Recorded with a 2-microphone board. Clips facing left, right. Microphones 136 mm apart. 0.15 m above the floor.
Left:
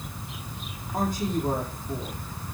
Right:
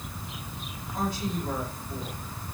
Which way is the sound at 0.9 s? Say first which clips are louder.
Left 4 dB; 55° left (ahead or behind).